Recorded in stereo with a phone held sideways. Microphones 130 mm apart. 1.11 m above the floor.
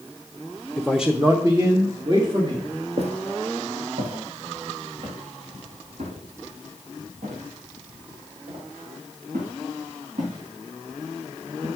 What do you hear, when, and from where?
0.8 s a man speaking: 15° left (ahead or behind), 0.6 m; by 2.7 s 40° right (ahead or behind), 2 m
3.0 s footsteps: 55° right (ahead or behind), 1.8 m; by 11.7 s 75° right (ahead or behind), 6.5 m